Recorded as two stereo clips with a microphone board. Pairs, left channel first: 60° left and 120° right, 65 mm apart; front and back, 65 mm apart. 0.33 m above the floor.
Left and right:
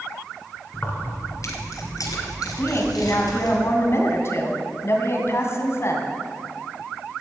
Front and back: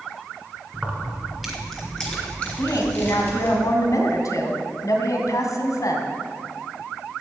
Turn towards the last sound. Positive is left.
turn(degrees=20)